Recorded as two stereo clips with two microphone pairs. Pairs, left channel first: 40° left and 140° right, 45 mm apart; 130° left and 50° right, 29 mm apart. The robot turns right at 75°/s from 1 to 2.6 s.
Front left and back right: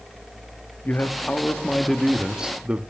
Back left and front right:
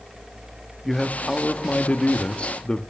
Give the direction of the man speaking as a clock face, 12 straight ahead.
10 o'clock.